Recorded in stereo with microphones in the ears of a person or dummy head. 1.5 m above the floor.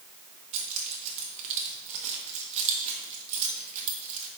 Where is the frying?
I don't hear frying.